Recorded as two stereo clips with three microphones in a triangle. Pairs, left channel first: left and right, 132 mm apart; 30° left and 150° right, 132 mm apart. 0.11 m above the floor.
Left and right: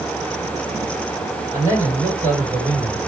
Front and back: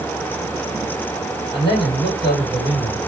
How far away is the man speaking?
About 3 m.